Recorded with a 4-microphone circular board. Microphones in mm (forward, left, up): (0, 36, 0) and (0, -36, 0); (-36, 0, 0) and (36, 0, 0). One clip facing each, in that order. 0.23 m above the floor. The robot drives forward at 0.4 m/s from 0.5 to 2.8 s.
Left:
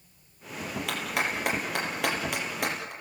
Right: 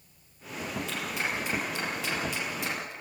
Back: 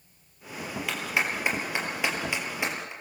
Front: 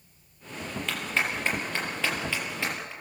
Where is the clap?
100° left, 4.5 m; by 2.9 s 110° left, 4.5 m.